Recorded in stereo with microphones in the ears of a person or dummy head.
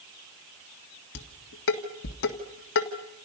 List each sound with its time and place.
1.1 s dishes clattering: 65° left (ahead or behind), 1.7 m